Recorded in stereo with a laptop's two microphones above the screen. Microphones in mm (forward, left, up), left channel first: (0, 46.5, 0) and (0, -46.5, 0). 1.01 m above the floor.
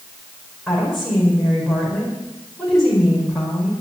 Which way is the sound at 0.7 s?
Centre (ahead or behind).